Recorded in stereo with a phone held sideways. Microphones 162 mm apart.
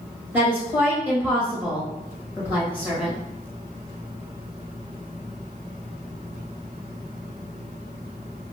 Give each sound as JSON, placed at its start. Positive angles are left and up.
{"t": 0.3, "sound": "a woman speaking", "side_deg": -10, "distance_m": 1.6}